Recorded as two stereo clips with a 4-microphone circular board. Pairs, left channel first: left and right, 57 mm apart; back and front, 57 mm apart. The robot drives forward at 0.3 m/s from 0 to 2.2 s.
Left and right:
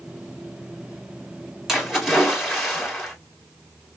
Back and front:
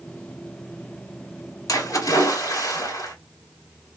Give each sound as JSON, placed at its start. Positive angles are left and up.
{"t": 1.7, "sound": "a splash", "azimuth_deg": -175, "distance_m": 1.9}